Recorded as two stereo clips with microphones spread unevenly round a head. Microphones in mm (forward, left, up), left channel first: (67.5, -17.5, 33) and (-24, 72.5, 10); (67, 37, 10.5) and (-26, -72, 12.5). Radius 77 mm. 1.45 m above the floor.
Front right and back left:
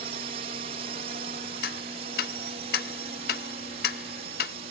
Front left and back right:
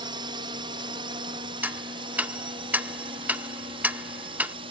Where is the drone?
170° left; by 4.7 s 175° left.